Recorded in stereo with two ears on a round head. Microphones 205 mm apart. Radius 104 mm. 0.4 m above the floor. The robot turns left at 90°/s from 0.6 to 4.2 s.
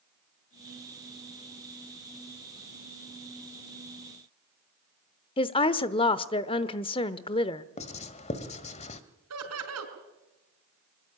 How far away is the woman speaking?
About 0.8 m.